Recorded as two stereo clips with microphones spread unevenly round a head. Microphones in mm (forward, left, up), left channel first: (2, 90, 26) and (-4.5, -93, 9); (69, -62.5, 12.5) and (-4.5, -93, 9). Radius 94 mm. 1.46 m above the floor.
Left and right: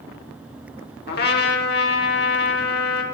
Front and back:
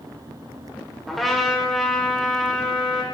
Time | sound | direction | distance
1.1 | a trumpet | 110° left | 1.9 m